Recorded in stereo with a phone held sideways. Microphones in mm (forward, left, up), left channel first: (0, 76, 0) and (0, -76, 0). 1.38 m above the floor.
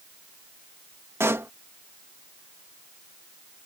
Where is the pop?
15° right (ahead or behind).